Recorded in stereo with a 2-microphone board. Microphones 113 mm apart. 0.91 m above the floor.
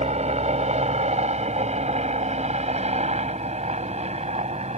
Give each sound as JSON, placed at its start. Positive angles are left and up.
{"t": 0.0, "sound": "a helicopter", "side_deg": -75}